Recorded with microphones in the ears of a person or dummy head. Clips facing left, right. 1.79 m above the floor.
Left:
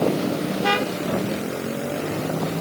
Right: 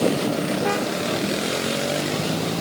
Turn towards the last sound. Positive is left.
No sound to turn to.